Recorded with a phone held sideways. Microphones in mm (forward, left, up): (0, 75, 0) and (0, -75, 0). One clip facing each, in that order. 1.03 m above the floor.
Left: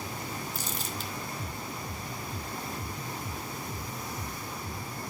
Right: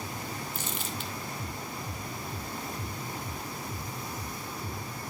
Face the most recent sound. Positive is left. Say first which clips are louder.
# even
turn(degrees=40)  # may be behind; listen again after turning